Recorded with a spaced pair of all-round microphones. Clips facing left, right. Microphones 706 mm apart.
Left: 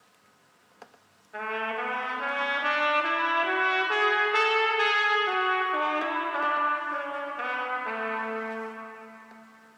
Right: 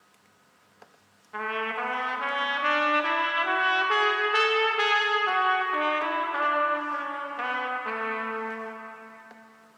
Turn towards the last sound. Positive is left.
turn(degrees=-35)  # may be behind; listen again after turning